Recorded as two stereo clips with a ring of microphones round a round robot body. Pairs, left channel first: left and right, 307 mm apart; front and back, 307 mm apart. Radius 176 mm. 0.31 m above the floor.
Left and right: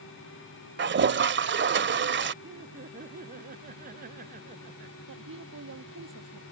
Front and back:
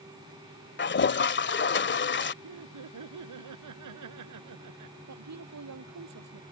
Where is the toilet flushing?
45° right.